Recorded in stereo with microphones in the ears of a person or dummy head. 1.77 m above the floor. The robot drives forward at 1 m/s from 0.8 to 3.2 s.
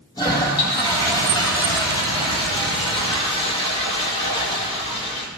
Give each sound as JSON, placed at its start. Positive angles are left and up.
{"t": 0.2, "sound": "a toilet flushing", "side_deg": 25, "distance_m": 7.5}